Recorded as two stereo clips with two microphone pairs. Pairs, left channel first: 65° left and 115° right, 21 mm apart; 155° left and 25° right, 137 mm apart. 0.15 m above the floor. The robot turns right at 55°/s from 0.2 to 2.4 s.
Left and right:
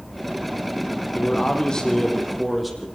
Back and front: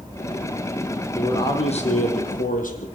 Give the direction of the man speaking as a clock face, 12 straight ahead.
9 o'clock.